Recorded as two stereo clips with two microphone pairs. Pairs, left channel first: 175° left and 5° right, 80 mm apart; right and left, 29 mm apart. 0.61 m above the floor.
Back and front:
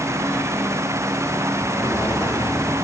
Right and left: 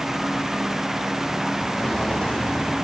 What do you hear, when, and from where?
1.7 s footsteps: 130° right, 7 m